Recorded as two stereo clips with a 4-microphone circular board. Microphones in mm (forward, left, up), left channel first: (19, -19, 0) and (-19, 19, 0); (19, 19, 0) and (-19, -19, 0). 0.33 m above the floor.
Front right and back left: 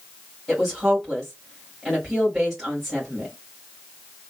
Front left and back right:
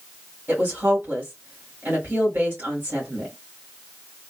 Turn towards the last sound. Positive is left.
turn(degrees=-135)